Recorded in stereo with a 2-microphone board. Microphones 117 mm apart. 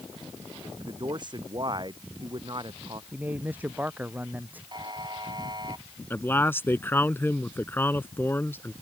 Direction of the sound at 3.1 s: 15° right (ahead or behind).